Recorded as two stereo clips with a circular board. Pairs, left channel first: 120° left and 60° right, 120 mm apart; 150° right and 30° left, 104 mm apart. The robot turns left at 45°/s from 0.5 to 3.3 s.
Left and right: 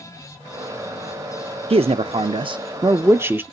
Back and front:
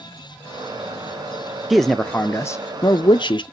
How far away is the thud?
I don't hear a thud.